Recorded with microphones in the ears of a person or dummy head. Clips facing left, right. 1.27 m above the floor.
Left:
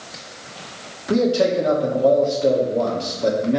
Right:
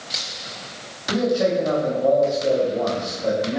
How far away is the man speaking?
About 2 m.